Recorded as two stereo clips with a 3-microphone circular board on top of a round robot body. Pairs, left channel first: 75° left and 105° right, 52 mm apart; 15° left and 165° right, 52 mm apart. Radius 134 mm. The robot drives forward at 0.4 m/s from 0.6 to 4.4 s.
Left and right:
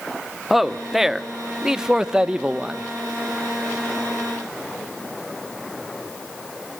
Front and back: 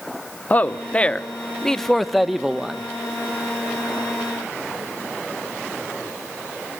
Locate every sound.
0.5 s a man speaking: 20° right, 1.3 m; by 2.9 s 130° right, 1.1 m